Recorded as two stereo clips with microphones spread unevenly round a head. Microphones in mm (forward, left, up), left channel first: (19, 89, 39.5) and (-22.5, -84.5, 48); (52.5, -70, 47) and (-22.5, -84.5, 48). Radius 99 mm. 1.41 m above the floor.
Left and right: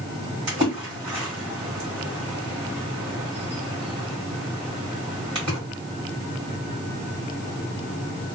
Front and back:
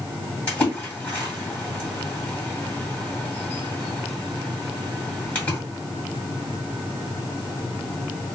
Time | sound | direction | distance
0.5 | a splash | 50° right | 1.7 m